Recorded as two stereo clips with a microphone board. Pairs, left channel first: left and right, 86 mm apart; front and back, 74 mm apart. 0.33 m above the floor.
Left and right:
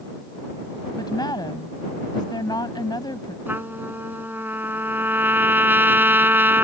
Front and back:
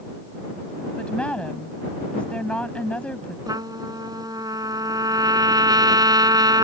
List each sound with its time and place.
1.0 s a woman speaking: 70° left
3.5 s a trumpet: 155° right